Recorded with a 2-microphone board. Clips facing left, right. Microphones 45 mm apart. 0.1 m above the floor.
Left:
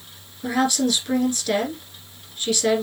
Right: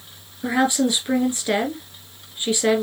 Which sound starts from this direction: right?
A woman speaking, at 0.4 s.